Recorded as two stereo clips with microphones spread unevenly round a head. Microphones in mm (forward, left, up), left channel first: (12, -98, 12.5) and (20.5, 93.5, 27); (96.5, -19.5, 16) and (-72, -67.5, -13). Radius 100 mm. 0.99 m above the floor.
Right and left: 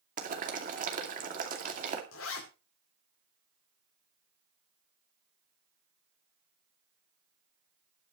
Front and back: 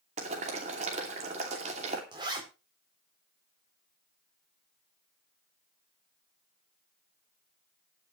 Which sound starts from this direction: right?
A zipper, at 2.1 s.